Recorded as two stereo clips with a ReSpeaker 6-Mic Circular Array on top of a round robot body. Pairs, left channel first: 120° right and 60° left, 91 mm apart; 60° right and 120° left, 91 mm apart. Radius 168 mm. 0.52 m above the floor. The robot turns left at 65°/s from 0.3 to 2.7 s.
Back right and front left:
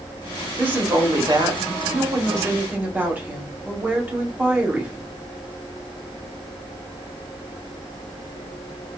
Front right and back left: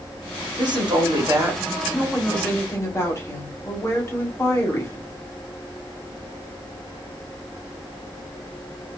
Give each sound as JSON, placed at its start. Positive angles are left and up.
{"t": 0.6, "sound": "a woman speaking", "azimuth_deg": 130, "distance_m": 1.6}